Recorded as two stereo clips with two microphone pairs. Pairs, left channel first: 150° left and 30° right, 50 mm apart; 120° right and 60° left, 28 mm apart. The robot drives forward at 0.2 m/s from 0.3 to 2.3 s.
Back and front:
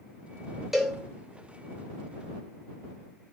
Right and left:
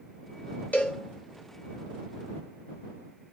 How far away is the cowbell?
About 0.7 m.